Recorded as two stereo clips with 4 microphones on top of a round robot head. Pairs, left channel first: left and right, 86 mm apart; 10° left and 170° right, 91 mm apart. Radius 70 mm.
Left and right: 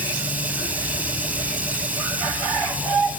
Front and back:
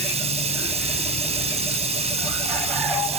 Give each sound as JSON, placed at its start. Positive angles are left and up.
{"t": 0.0, "sound": "running water", "azimuth_deg": -170}